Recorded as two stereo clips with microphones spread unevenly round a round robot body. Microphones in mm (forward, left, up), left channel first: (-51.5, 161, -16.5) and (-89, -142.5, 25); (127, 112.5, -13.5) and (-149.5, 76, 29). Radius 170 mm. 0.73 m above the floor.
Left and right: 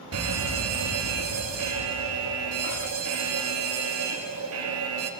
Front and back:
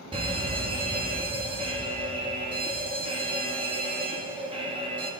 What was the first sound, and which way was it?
A fire alarm, 95° right.